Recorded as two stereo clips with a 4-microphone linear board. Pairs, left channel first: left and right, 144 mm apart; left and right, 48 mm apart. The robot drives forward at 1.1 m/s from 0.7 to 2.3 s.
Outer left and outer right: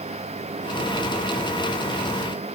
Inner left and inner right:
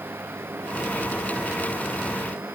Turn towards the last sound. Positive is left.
No sound to turn to.